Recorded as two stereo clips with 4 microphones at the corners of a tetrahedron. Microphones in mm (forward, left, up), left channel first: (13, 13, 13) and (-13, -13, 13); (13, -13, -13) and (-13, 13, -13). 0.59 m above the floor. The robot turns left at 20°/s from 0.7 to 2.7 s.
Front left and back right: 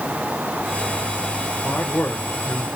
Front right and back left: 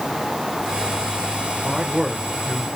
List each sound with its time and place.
1.6 s a man speaking: 65° left, 1.5 m; by 2.7 s 45° left, 1.5 m